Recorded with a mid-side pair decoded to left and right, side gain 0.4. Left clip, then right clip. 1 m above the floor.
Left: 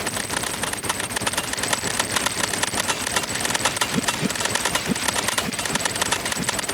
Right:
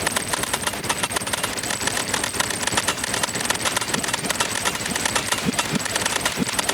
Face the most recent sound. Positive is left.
No sound to turn to.